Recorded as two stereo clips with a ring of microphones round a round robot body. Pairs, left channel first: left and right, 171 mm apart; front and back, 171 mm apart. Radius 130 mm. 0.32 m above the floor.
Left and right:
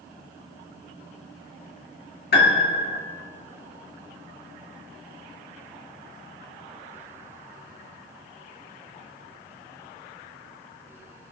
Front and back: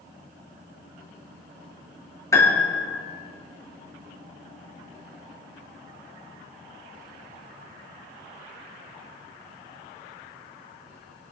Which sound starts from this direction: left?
A piano, at 2.3 s.